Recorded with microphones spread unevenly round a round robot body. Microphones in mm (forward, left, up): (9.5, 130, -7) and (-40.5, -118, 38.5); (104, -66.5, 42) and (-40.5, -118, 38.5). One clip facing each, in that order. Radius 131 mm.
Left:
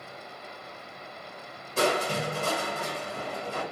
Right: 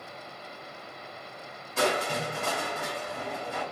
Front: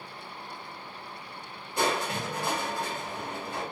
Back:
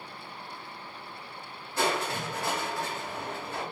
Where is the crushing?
90° left, 1.0 m.